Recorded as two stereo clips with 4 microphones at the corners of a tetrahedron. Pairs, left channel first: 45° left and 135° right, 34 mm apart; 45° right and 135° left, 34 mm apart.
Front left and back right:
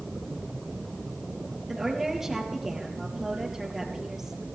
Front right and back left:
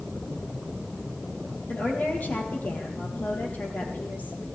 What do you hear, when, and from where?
1.7 s a woman speaking: 55° right, 3.5 m